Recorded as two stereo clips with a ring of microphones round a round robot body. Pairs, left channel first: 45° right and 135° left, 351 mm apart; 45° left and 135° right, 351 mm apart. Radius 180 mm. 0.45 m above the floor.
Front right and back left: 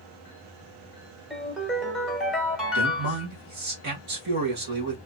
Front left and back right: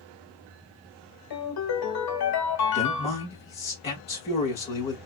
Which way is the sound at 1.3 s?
45° left.